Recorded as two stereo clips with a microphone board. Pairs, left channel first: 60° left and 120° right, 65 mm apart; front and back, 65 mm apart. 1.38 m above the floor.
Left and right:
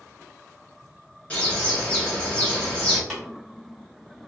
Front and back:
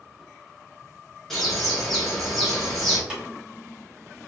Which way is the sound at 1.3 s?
75° left.